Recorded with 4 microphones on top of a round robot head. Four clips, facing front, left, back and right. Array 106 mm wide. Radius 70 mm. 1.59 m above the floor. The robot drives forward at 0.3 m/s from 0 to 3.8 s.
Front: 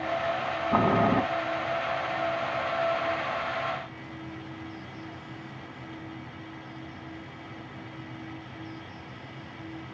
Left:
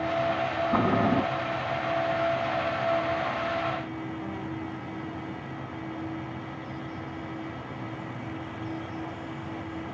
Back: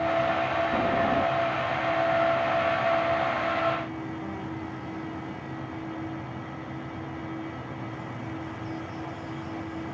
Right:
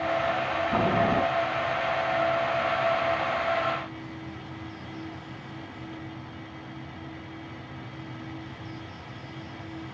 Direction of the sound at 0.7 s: 10° left.